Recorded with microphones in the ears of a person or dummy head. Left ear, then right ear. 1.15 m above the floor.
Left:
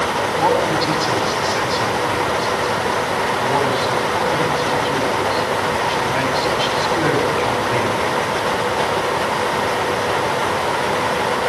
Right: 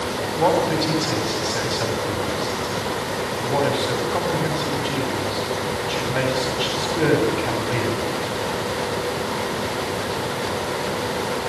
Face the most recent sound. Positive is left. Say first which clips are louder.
# left 1 dB
turn(degrees=15)  # may be behind; listen again after turning